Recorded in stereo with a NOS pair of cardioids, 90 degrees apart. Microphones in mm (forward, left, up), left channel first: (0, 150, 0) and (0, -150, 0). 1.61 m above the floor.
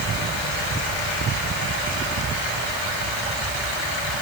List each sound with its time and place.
Only background noise.